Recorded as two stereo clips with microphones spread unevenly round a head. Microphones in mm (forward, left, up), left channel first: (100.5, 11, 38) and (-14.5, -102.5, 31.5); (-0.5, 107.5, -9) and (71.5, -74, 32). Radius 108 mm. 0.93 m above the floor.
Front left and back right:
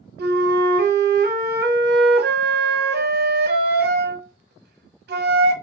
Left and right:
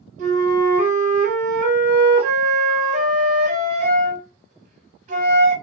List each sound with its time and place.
0.2 s a flute: 130° right, 0.7 m